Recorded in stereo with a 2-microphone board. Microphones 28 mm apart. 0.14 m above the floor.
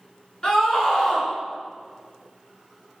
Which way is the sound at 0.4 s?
30° left (ahead or behind).